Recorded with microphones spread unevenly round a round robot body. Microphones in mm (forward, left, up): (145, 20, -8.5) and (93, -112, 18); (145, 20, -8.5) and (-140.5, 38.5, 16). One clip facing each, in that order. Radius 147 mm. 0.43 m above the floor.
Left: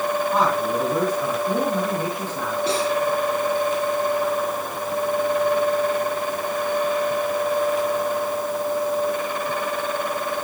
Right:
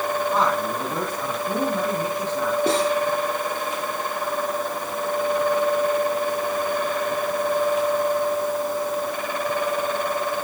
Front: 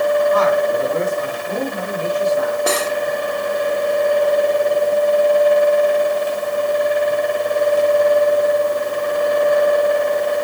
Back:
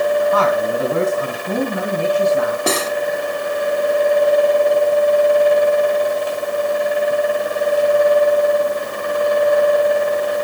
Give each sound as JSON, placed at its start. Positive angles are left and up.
{"t": 0.3, "sound": "a man speaking", "azimuth_deg": 155, "distance_m": 4.5}
{"t": 2.7, "sound": "cutlery clinking", "azimuth_deg": 180, "distance_m": 2.5}